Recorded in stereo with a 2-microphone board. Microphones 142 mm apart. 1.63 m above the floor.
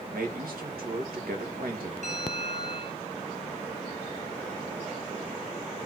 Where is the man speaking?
90° right, 2.5 m.